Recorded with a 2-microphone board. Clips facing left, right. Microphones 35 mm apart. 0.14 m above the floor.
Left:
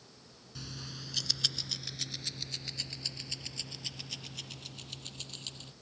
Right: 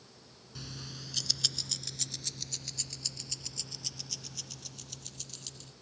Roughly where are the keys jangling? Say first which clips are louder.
Even; centre.